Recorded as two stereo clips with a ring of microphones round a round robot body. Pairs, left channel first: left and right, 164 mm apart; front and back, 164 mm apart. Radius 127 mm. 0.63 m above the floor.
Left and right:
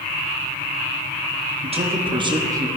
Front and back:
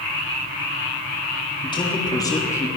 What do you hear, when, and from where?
1.6 s a man speaking: 55° right, 1.7 m; by 2.7 s 50° right, 1.2 m